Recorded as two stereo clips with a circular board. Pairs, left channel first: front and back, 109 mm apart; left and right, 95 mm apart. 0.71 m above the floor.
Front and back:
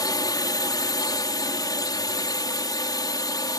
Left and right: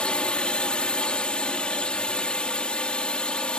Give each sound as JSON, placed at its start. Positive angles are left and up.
{"t": 0.0, "sound": "a drone", "azimuth_deg": 20}